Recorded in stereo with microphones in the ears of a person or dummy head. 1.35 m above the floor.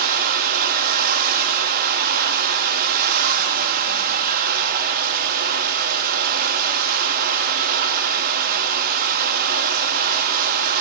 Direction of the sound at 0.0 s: 50° right (ahead or behind).